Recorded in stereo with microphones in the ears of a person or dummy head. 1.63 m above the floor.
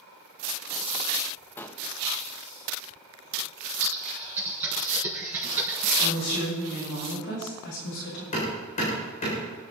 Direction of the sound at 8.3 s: 35° left (ahead or behind).